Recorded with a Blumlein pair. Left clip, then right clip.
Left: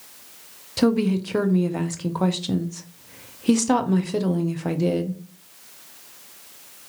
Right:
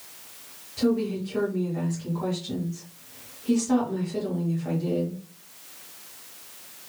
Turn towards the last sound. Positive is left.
turn(degrees=35)